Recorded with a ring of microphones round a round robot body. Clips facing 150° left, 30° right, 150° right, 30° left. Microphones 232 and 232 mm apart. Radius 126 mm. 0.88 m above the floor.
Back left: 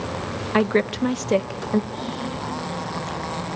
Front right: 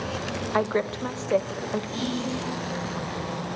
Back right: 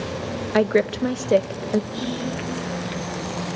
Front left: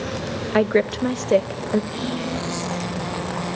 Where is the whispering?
40° right, 4 m.